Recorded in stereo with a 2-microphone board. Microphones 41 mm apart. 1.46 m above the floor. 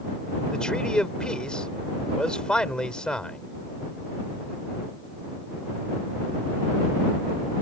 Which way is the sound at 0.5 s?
20° left (ahead or behind).